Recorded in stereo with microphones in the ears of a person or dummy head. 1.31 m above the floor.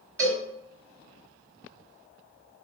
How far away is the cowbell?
About 1.4 m.